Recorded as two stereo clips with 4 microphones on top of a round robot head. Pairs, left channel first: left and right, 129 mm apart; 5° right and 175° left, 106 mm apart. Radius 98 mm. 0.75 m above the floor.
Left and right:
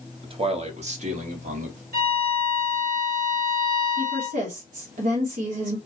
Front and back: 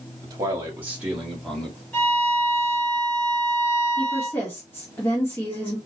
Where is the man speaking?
130° right, 1.6 m; by 1.8 s 85° right, 2 m.